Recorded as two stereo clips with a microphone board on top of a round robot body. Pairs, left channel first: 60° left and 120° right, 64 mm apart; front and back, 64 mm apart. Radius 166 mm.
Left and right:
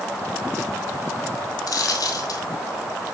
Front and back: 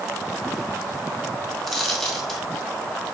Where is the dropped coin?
85° left, 1.9 m.